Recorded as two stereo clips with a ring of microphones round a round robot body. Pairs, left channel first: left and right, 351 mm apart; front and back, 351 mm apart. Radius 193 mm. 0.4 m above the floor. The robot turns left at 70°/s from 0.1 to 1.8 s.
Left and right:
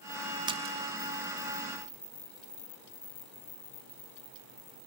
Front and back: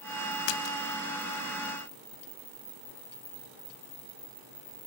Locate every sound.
0.5 s a splash: 10° right, 0.7 m; by 0.8 s 30° right, 0.7 m